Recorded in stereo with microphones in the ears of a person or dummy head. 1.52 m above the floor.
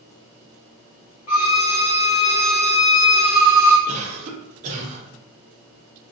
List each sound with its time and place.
1.3 s a violin: 20° left (ahead or behind), 0.8 m
3.9 s a cough: 40° right (ahead or behind), 0.9 m